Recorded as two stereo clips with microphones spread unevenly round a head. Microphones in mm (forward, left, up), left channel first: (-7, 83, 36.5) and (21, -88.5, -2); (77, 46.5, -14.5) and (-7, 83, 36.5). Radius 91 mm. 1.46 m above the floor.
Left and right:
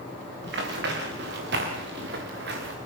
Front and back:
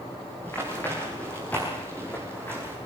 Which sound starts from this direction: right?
Running footsteps, at 0.4 s.